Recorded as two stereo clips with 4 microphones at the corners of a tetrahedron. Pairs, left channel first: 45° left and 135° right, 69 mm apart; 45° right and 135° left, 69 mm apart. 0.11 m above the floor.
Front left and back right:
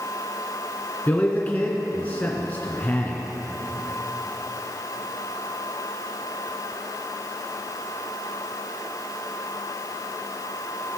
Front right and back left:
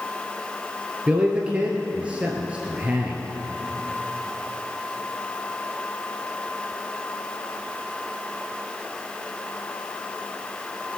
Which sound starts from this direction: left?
A man speaking, at 1.1 s.